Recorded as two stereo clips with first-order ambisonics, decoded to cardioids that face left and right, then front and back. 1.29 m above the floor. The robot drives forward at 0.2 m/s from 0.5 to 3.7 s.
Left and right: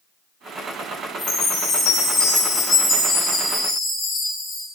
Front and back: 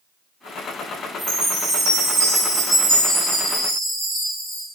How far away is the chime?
About 0.8 m.